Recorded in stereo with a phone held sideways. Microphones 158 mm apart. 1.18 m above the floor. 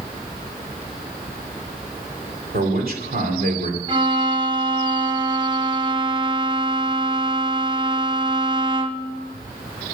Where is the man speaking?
70° right (ahead or behind), 3 m.